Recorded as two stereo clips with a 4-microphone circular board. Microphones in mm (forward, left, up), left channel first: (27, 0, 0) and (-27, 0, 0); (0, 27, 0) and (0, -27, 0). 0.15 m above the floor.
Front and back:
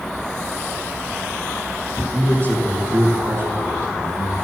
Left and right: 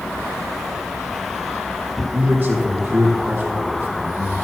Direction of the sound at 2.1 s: 150° right.